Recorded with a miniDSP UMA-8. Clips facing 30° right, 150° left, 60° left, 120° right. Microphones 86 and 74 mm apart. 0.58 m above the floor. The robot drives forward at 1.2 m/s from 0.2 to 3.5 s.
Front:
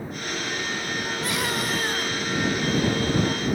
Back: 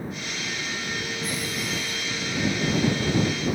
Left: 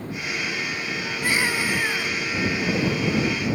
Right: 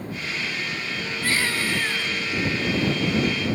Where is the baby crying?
10° right; by 2.1 s 15° right.